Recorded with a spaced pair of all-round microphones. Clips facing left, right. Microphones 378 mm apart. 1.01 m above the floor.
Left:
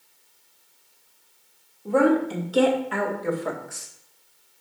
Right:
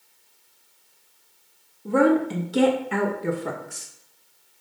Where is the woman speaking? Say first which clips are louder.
Right 1 dB; 30° right (ahead or behind), 1.9 m; by 3.9 s 45° right (ahead or behind), 1.1 m.